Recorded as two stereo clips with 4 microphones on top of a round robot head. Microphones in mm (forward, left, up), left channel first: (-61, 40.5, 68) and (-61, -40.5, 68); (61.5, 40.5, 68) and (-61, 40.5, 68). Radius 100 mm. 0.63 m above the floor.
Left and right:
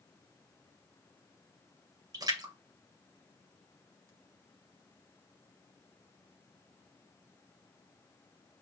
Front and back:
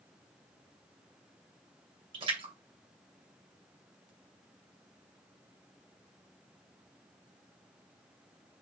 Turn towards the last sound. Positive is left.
turn(degrees=-130)